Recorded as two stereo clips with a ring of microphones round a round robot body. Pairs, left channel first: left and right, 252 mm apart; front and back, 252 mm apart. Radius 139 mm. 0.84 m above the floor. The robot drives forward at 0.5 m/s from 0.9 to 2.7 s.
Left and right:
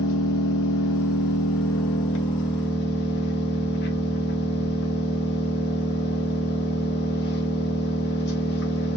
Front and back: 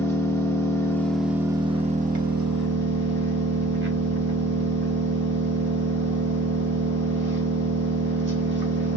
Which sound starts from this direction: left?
An engine running, at 0.0 s.